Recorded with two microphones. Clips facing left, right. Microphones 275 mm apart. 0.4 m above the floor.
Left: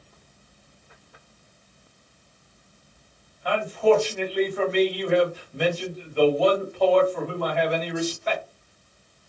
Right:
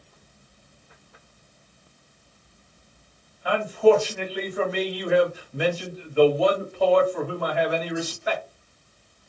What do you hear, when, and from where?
3.5 s a man speaking: 10° right (ahead or behind), 1.6 m